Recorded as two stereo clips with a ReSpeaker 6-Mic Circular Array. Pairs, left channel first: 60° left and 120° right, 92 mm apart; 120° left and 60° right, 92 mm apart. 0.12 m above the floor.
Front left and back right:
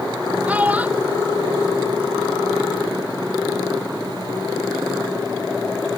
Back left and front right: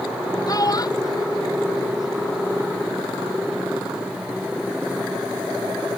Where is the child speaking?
165° left; by 2.5 s 170° left.